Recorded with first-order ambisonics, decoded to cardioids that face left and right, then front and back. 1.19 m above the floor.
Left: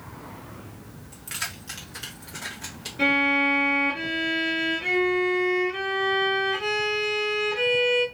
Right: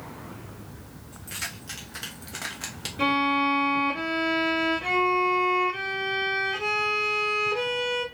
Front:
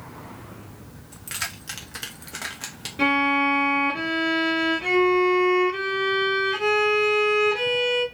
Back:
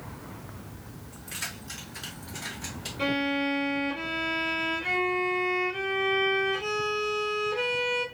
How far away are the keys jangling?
About 1.2 m.